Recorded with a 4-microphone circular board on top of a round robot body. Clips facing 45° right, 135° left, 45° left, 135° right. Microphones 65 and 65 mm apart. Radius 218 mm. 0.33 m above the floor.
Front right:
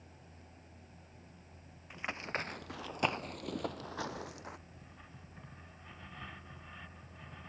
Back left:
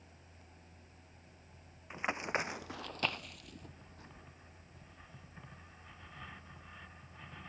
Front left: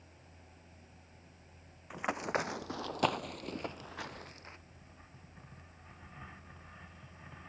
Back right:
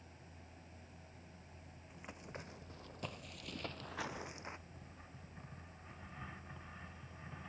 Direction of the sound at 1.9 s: 65° left.